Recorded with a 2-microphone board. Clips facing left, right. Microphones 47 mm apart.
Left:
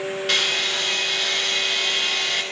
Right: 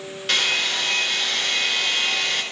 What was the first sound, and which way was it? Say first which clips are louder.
A hair dryer: right 2 dB; 5° left (ahead or behind).